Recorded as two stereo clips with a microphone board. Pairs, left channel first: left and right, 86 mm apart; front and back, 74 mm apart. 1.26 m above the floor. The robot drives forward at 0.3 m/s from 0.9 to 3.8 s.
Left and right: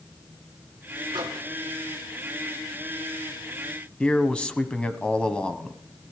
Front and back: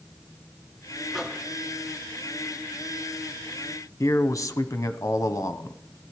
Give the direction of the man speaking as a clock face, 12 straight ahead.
11 o'clock.